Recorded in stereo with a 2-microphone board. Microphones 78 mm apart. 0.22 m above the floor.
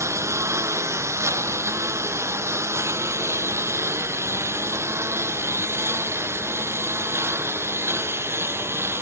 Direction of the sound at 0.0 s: 35° right (ahead or behind).